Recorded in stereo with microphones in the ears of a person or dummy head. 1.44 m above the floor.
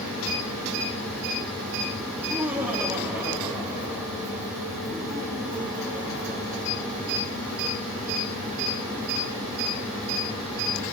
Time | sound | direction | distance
2.1 | laughter | centre (ahead or behind) | 3.5 m